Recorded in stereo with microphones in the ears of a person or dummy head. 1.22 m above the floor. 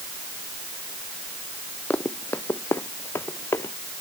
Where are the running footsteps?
10° left (ahead or behind); by 3.7 s 15° left (ahead or behind).